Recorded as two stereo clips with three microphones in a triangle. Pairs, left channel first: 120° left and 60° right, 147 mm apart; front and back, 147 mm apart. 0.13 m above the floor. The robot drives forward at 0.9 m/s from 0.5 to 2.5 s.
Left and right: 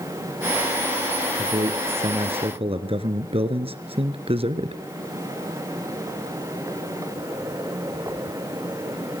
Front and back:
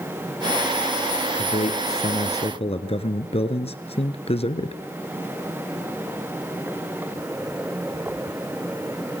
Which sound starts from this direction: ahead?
A man speaking, at 1.4 s.